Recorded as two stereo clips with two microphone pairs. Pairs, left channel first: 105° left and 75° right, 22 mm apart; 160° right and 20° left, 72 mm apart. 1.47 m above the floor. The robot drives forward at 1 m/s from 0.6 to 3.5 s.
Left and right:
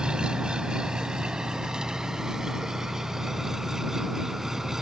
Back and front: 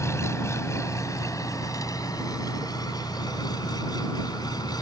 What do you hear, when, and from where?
0.0 s an engine running: 115° right; by 4.8 s 140° right